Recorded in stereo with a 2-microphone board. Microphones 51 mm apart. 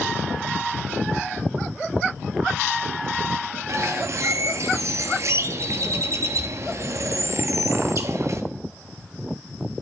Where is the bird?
60° right (ahead or behind), 0.6 m.